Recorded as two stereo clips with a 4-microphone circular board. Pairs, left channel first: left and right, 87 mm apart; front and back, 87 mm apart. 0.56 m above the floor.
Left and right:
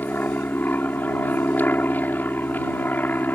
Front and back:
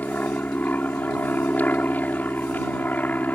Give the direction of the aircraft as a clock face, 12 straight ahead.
10 o'clock.